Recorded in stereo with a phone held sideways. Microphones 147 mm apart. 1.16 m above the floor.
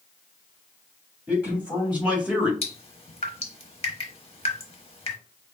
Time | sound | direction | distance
1.3 | a man speaking | 10° right (ahead or behind) | 2.5 m
2.6 | dripping | 45° left (ahead or behind) | 0.9 m